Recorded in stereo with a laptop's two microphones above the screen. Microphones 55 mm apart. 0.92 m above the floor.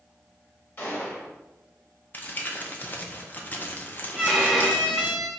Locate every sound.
0.8 s a gunshot: 35° left (ahead or behind), 1.0 m
2.1 s crumpling: 35° left (ahead or behind), 0.5 m
4.2 s a violin: 5° right (ahead or behind), 0.9 m